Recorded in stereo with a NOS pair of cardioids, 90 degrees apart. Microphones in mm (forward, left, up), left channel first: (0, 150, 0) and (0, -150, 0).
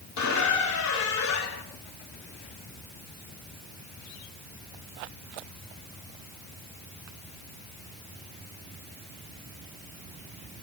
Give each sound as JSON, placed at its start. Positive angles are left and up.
{"t": 0.2, "sound": "a squeak", "azimuth_deg": 70, "distance_m": 2.0}